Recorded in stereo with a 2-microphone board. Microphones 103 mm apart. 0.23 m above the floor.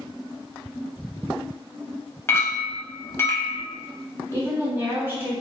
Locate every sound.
2.3 s a clink: 25° left (ahead or behind), 0.6 m
4.3 s a woman speaking: 20° right (ahead or behind), 1.0 m